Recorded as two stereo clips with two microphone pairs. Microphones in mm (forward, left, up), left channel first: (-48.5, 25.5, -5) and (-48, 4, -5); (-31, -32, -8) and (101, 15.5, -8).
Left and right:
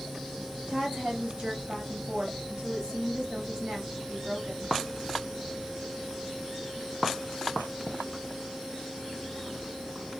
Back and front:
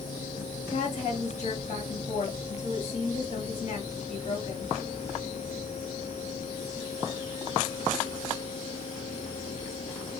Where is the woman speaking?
125° right, 4 m.